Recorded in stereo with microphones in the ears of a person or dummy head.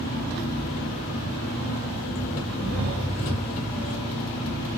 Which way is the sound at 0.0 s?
45° left (ahead or behind).